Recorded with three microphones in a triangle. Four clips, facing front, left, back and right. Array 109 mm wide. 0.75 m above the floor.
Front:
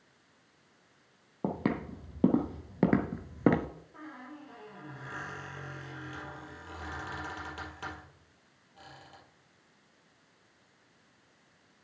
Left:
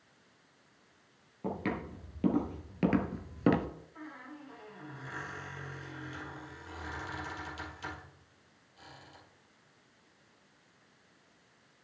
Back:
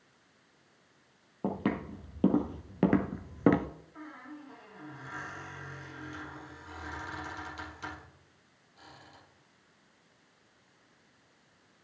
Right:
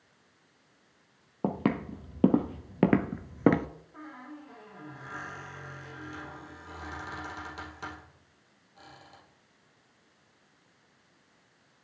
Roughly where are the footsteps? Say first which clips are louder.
Right 6 dB, even; right.